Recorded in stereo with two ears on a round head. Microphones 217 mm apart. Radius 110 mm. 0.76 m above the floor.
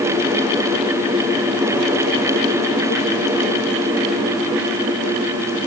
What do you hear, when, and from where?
Only background noise.